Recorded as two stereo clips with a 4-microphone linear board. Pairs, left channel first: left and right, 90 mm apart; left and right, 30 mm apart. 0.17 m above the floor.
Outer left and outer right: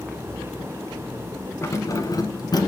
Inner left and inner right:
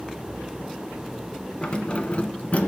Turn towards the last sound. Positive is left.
turn(degrees=55)  # may be behind; listen again after turning